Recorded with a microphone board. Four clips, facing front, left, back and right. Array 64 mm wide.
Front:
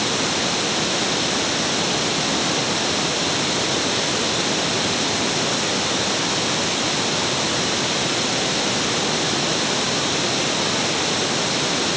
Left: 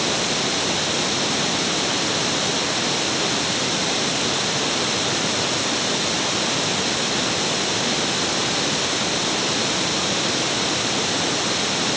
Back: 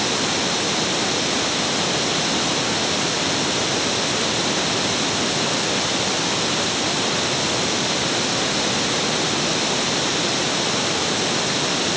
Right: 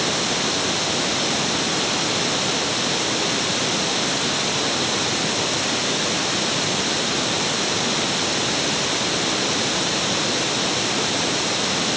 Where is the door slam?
I don't hear a door slam.